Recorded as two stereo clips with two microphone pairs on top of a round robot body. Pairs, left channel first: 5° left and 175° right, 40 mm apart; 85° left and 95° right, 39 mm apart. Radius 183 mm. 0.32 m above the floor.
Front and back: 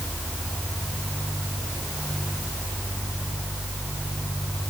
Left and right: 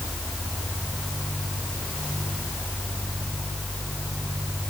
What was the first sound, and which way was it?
Only background noise.